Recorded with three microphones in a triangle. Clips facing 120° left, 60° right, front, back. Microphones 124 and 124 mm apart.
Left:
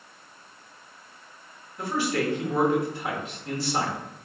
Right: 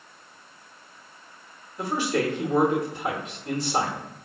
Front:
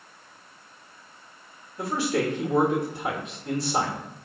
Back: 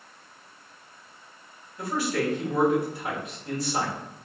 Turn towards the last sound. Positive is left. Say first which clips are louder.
# right 1 dB, front 2 dB
turn(degrees=-5)